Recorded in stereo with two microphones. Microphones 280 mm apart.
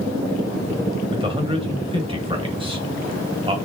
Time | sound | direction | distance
1.1 | a man speaking | 20° right (ahead or behind) | 0.9 m